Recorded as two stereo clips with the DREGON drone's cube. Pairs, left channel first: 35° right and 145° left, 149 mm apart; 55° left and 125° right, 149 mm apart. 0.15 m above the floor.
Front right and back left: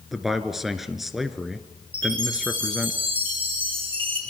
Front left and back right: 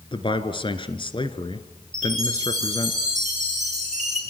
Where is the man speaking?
60° left, 1.6 m.